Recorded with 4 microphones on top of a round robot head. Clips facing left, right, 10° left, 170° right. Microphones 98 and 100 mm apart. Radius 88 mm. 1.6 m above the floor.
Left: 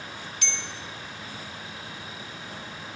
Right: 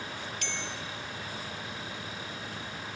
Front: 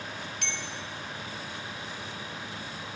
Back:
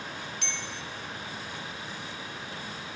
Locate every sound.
0.4 s a bell: 40° right, 0.9 m